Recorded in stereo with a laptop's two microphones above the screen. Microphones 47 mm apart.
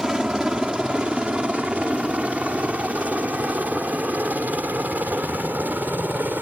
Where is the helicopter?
15° right (ahead or behind); by 6.4 s 40° right (ahead or behind).